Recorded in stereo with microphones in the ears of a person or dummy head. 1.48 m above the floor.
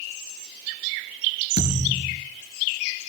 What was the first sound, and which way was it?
A thud, 50° left (ahead or behind).